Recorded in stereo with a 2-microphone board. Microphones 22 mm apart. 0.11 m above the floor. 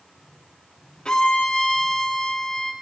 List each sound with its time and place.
1.1 s a violin: 35° left (ahead or behind), 5 m